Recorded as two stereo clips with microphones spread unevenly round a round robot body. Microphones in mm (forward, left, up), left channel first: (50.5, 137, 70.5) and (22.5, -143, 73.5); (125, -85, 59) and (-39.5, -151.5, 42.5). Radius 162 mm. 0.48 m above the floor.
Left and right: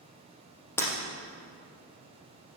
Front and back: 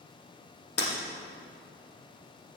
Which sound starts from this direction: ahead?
Breaking glass, at 0.8 s.